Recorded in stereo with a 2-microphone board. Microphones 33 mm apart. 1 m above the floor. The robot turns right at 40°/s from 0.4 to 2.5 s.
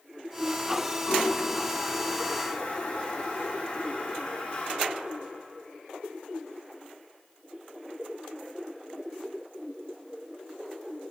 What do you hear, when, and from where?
1.1 s a toilet flushing: 60° left (ahead or behind), 1.1 m; by 4.8 s 40° left (ahead or behind), 1.1 m